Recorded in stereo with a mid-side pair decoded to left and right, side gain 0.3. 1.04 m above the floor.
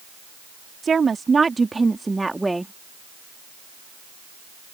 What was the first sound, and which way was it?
A woman speaking, 55° right.